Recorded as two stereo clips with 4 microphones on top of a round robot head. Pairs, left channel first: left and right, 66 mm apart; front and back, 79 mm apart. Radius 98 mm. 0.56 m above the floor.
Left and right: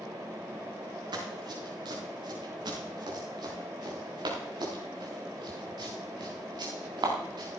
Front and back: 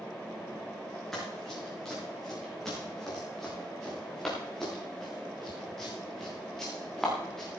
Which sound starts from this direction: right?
Running footsteps, at 1.1 s.